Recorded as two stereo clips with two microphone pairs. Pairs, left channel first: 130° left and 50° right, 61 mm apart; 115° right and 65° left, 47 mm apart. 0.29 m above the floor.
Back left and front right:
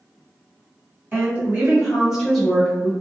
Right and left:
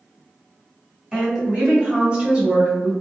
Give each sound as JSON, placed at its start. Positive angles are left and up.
{"t": 1.1, "sound": "a woman speaking", "azimuth_deg": -5, "distance_m": 1.6}